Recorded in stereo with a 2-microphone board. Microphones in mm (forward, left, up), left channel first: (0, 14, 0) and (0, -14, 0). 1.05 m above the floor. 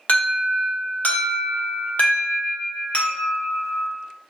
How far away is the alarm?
About 0.7 m.